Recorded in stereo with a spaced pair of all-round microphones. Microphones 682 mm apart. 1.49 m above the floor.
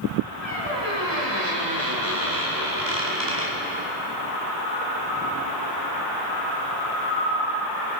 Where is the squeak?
40° right (ahead or behind), 2.5 m.